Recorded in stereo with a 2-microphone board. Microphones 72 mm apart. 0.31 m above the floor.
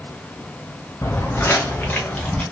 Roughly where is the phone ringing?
No phone ringing in this recording.